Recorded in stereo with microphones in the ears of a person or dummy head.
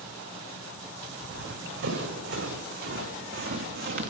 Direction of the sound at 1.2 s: 75° right (ahead or behind).